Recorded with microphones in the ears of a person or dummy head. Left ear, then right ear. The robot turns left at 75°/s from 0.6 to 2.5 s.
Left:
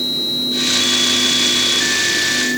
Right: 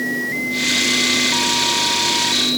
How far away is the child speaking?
No child speaking in this recording.